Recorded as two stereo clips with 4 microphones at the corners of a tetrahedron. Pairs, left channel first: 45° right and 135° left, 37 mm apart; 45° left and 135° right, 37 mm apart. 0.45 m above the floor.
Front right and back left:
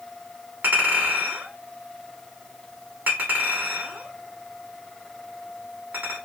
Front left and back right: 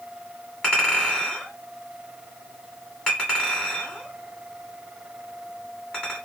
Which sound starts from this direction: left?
A clink, at 0.6 s.